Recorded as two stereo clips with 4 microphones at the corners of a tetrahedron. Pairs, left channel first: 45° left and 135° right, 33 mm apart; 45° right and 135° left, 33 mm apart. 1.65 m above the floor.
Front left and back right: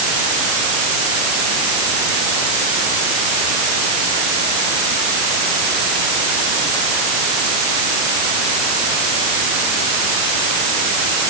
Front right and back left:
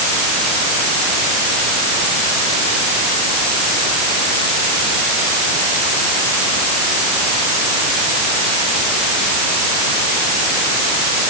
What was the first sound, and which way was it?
Only background noise.